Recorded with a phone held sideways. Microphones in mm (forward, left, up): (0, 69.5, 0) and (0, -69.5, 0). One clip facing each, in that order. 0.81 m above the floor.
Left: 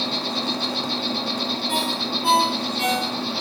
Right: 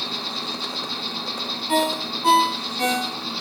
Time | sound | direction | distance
0.0 | an insect | 60° left (ahead or behind) | 1.6 m
1.7 | a ringtone | 40° right (ahead or behind) | 3 m